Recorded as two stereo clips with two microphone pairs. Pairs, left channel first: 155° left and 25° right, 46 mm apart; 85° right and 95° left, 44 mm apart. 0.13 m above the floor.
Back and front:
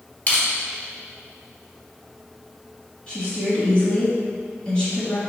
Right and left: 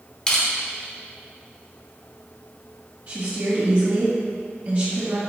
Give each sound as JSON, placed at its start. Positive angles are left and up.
{"t": 0.3, "sound": "crushing", "azimuth_deg": -150, "distance_m": 1.3}
{"t": 3.1, "sound": "a woman speaking", "azimuth_deg": 100, "distance_m": 1.6}